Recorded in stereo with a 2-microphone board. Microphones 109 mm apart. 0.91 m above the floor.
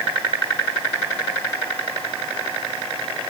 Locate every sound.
Only background noise.